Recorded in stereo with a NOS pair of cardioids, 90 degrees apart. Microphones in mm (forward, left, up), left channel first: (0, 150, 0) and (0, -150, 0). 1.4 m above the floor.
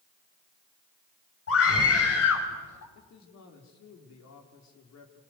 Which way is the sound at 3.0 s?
65° left.